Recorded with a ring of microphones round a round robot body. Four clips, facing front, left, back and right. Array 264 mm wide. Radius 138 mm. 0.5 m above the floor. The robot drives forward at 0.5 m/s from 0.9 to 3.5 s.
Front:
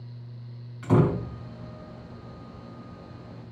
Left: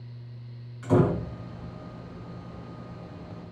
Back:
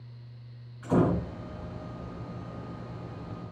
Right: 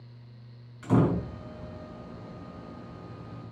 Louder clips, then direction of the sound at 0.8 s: Left 2 dB, front 2 dB; 5° right.